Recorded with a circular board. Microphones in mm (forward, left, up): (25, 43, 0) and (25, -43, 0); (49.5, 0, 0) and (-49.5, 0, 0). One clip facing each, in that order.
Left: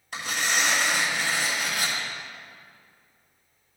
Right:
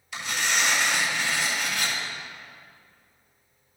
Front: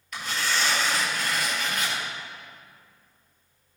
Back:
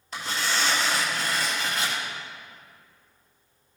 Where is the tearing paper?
125° left, 3 m.